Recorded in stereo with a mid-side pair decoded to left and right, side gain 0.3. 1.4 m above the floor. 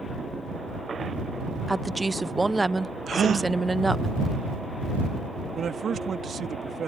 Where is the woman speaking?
20° right.